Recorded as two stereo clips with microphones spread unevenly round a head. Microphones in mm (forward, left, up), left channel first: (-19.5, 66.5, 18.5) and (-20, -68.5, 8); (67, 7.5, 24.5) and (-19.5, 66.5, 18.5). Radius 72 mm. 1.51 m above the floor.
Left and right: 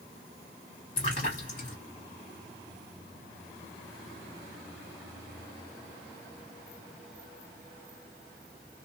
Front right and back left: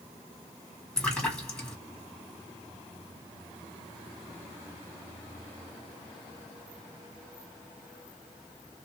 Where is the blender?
No blender in this recording.